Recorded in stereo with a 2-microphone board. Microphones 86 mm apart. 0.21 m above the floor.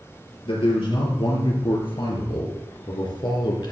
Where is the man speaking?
75° left (ahead or behind), 4 m; by 3.7 s 55° left (ahead or behind), 2.5 m.